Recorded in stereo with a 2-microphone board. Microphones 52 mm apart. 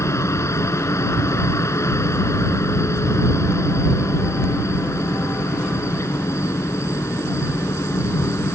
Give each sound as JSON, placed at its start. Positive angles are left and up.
{"t": 0.0, "sound": "a helicopter", "side_deg": 65}